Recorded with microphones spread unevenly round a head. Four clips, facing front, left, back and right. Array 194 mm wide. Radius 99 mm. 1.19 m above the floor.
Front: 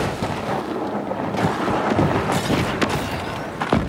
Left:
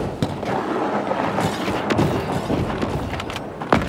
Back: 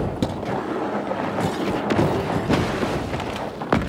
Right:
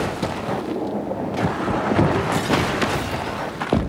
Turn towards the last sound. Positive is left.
turn(degrees=140)